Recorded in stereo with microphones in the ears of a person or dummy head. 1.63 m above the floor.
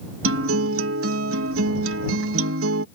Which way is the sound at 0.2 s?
85° right.